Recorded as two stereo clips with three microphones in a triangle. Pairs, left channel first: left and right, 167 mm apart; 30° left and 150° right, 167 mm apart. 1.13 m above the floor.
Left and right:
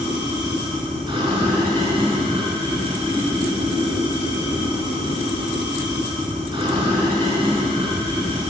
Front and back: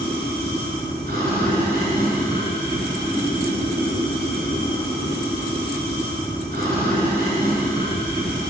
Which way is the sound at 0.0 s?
150° right.